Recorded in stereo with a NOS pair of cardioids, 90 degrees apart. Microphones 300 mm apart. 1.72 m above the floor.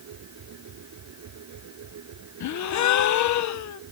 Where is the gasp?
65° left.